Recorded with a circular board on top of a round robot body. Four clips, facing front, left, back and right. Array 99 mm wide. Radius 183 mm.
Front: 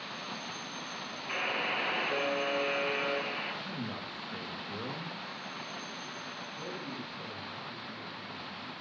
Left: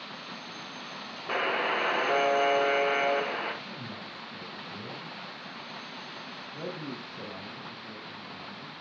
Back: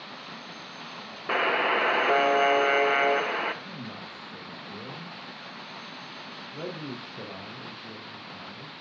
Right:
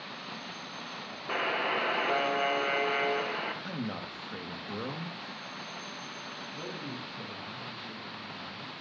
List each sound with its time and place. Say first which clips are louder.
1.3 s a buzzer: left 2 dB, back 10 dB; 170° left, 1.4 m
3.6 s a man speaking: right 5 dB, front 1 dB; 75° right, 2 m
6.5 s a man speaking: left 4 dB, back 6 dB; 160° left, 5 m